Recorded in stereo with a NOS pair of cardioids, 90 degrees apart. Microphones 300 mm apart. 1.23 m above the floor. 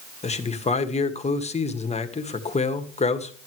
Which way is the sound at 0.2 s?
20° left.